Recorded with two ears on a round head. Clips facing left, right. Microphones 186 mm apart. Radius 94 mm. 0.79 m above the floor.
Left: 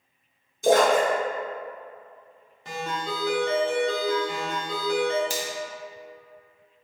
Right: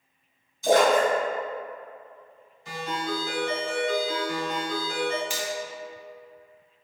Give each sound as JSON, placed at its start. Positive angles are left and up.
{"t": 0.6, "sound": "a splash", "side_deg": 45, "distance_m": 1.5}
{"t": 2.6, "sound": "a ringtone", "side_deg": 50, "distance_m": 1.4}
{"t": 5.3, "sound": "a finger snap", "side_deg": 35, "distance_m": 0.8}